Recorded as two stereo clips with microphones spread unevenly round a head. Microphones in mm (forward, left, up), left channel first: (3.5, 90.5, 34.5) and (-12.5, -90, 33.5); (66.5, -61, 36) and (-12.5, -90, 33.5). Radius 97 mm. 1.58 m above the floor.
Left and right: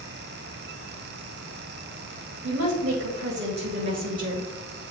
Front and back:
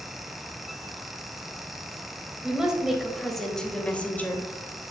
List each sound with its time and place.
2.4 s a woman speaking: 80° right, 2 m; by 4.5 s 40° right, 1.5 m